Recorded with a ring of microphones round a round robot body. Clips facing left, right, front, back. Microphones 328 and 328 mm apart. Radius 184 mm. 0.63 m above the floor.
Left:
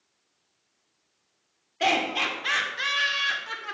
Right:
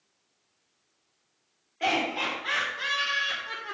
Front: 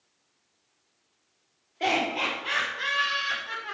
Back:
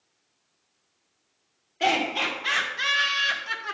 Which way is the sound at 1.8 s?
115° left.